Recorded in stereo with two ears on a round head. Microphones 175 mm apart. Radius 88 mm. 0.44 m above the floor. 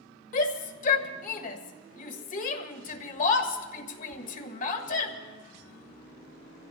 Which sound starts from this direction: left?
A shout, at 0.3 s.